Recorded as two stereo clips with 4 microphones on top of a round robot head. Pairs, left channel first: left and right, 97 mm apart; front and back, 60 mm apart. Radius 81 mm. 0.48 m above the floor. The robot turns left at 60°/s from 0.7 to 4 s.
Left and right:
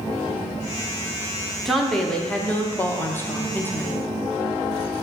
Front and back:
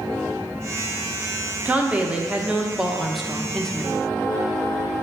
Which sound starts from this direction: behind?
A woman speaking, at 1.6 s.